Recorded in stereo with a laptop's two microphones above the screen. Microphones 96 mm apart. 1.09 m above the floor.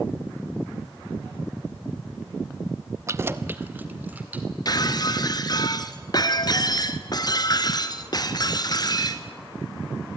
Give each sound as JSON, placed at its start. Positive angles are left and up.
{"t": 3.1, "sound": "keys jangling", "side_deg": -30, "distance_m": 0.5}
{"t": 4.7, "sound": "breaking glass", "side_deg": 45, "distance_m": 1.4}